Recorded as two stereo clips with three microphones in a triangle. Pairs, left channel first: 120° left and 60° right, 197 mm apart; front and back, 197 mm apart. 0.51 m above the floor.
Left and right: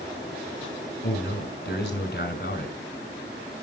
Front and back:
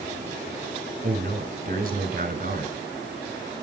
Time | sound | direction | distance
1.0 | a man speaking | 140° left | 2.5 m